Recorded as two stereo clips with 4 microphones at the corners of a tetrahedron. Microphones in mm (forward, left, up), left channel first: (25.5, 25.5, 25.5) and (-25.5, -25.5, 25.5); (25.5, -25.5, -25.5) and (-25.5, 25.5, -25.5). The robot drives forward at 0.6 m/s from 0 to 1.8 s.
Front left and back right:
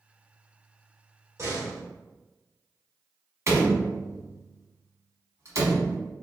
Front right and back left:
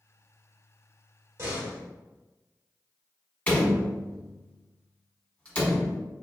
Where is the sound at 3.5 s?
115° right, 1.0 m.